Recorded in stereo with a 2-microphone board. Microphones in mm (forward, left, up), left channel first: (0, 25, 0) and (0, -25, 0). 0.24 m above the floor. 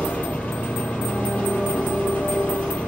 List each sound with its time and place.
0.0 s an engine running: 30° left (ahead or behind), 5 m